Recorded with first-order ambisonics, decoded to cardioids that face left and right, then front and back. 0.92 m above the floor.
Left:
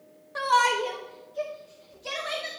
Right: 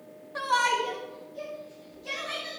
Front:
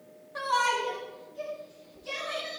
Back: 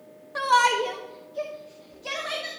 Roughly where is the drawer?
I don't hear a drawer.